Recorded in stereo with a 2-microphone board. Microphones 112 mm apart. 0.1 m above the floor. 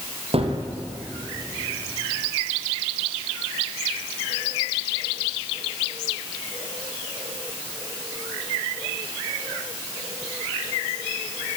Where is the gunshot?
60° right (ahead or behind), 3 m.